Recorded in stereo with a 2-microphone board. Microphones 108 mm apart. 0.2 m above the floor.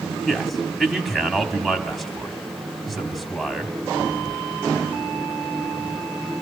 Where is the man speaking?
Centre (ahead or behind), 1.1 m.